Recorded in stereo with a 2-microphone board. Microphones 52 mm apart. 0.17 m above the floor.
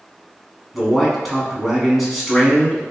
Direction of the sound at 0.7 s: Centre (ahead or behind).